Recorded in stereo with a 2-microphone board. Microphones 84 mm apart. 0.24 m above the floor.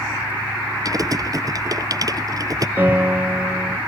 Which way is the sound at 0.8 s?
45° right (ahead or behind).